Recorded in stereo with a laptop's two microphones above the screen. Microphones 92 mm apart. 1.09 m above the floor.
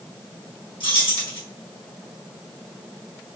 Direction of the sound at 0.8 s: 85° left.